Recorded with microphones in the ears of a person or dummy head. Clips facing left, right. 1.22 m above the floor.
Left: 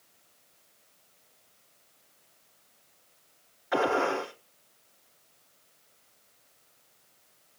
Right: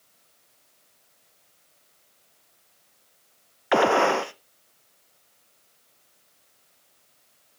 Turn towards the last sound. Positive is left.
turn(degrees=-70)  # may be behind; listen again after turning